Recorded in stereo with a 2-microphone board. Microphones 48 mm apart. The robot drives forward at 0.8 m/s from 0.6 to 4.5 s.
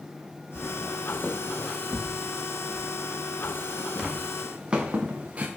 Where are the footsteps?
30° left (ahead or behind), 1.2 m; by 5.5 s 30° right (ahead or behind), 2.5 m.